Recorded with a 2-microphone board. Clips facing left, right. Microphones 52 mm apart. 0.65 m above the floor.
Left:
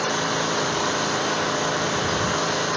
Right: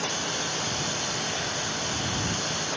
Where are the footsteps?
No footsteps in this recording.